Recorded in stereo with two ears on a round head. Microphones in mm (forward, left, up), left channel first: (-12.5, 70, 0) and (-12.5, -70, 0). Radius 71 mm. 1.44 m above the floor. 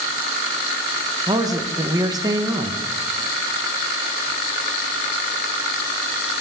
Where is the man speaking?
25° right (ahead or behind), 1.1 m.